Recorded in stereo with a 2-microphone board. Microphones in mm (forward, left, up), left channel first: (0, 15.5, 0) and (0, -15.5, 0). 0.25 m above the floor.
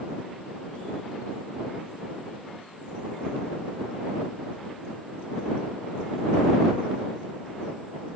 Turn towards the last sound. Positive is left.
No sound to turn to.